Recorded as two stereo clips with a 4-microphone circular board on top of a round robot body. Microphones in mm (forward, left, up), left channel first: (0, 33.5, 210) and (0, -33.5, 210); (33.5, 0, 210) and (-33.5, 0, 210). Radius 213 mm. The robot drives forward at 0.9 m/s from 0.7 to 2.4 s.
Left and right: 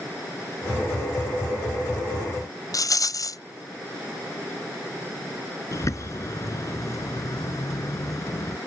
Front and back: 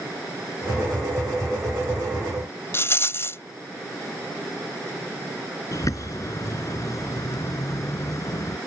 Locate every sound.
2.7 s a rattle: 55° left
5.7 s a bird: 45° left